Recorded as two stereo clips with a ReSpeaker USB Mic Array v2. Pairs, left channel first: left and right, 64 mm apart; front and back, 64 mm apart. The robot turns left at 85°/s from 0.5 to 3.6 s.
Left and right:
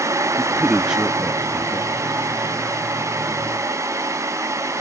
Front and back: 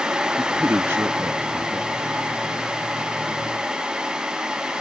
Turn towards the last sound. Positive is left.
turn(degrees=-35)